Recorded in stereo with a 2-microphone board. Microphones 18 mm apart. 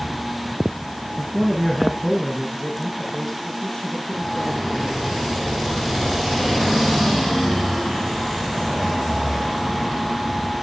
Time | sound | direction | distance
1.2 | a man speaking | 20° right (ahead or behind) | 2 m